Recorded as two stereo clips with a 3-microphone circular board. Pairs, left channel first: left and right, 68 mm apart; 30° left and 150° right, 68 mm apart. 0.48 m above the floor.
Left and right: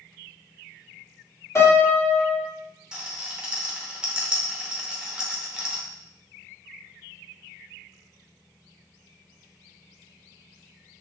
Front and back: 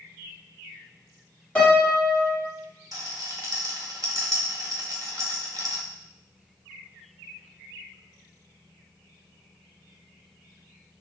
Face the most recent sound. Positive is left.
turn(degrees=-165)